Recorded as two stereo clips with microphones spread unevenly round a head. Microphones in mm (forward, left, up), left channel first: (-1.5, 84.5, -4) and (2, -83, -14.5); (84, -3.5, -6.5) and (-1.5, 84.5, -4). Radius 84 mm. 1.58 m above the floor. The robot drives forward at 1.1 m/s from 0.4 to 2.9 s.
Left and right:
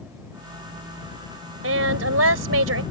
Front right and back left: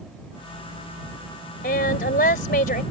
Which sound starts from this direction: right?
A woman speaking, at 1.6 s.